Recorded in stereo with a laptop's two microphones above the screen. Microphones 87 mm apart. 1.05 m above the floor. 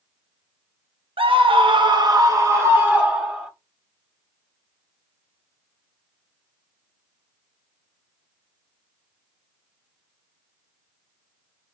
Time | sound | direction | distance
1.2 | a scream | 85° right | 0.9 m